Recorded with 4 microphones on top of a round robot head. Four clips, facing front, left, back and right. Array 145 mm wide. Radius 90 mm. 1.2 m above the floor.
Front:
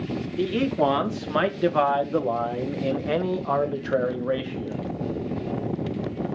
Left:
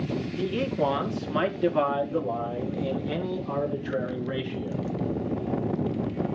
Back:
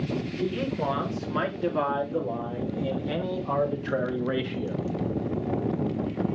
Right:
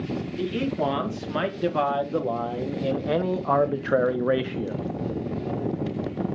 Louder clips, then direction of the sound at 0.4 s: Right 1 dB, front 8 dB; 5° right.